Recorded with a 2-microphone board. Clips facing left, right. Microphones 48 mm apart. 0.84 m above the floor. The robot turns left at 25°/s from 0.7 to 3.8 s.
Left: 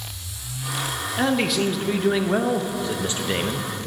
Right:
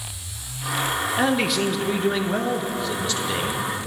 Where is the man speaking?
170° right, 0.5 m; by 3.7 s 125° left, 0.5 m.